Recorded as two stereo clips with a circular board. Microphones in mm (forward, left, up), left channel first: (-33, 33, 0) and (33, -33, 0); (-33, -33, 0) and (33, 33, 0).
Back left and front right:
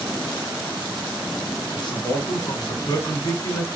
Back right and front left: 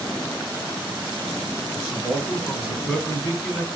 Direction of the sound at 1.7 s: 130° left.